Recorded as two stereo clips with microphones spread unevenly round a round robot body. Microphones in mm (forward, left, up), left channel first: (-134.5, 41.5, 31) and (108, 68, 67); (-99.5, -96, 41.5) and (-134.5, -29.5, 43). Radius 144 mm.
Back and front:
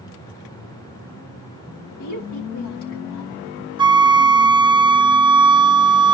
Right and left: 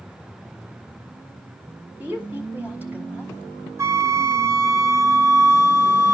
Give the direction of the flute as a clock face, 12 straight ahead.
9 o'clock.